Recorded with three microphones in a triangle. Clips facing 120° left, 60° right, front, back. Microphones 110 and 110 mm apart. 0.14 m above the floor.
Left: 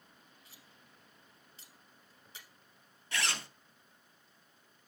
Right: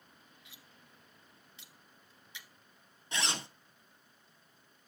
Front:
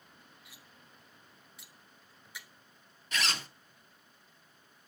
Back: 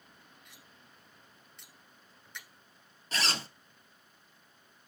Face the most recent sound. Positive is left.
turn(degrees=-125)